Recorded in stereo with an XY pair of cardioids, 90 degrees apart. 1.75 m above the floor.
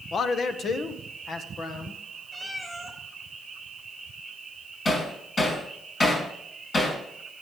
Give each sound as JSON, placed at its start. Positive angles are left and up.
{"t": 0.1, "sound": "a man speaking", "azimuth_deg": 55, "distance_m": 1.0}
{"t": 2.3, "sound": "a cat meowing", "azimuth_deg": 10, "distance_m": 3.5}
{"t": 4.8, "sound": "hammering", "azimuth_deg": 40, "distance_m": 5.5}